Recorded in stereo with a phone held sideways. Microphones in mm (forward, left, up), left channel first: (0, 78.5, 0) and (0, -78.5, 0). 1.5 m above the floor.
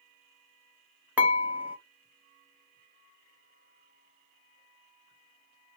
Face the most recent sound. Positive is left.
turn(degrees=-10)  # may be behind; listen again after turning